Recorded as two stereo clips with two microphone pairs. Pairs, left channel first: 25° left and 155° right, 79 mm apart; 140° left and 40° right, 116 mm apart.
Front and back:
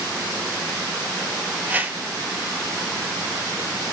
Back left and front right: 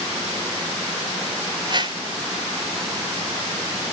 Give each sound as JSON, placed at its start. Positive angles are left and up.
{"t": 1.7, "sound": "a whoosh", "azimuth_deg": -85, "distance_m": 1.3}